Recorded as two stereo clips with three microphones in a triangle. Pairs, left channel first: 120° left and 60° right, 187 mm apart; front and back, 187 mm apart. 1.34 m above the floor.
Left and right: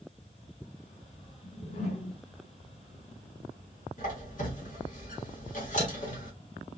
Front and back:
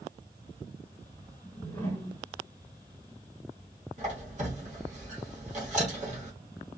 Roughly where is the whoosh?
Left.